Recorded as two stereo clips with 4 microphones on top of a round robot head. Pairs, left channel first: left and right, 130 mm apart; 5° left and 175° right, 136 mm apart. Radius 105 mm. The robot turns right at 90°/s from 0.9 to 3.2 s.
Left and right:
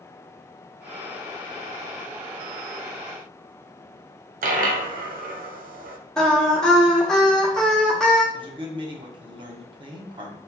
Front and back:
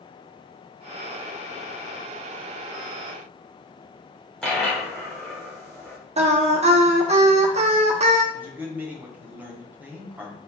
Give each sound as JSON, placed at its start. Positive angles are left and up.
{"t": 4.4, "sound": "a dropped coin", "azimuth_deg": -80, "distance_m": 0.6}
{"t": 6.2, "sound": "singing", "azimuth_deg": 175, "distance_m": 0.7}
{"t": 8.3, "sound": "a man speaking", "azimuth_deg": -100, "distance_m": 0.9}